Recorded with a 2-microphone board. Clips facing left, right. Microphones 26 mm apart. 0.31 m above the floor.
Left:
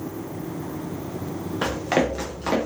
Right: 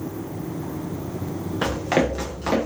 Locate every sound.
1.6 s running footsteps: centre (ahead or behind), 1.5 m